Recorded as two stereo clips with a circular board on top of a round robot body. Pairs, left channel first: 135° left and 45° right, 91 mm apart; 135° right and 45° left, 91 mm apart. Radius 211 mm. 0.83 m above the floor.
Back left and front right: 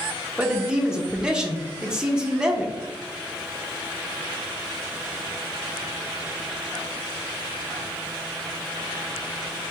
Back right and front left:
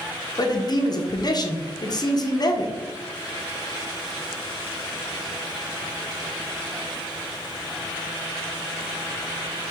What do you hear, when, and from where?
0.4 s a man speaking: 125° right, 0.9 m